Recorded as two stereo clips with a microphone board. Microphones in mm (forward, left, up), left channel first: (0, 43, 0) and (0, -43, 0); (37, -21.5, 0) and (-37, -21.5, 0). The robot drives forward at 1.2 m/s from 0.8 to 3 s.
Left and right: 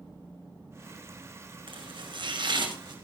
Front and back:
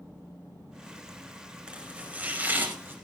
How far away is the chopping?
About 5 m.